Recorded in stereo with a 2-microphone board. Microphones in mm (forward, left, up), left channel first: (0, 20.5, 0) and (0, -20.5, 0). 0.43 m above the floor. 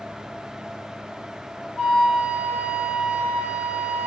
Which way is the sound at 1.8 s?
45° left (ahead or behind).